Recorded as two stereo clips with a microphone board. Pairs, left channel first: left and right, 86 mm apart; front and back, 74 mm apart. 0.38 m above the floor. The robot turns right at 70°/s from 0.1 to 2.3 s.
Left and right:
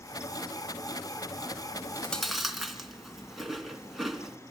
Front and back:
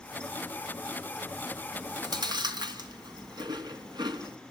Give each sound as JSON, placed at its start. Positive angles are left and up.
{"t": 1.7, "sound": "chewing", "azimuth_deg": 140, "distance_m": 3.0}